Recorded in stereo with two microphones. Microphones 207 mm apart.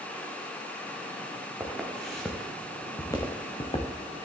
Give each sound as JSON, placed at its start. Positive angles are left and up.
{"t": 1.6, "sound": "footsteps", "side_deg": -5, "distance_m": 3.0}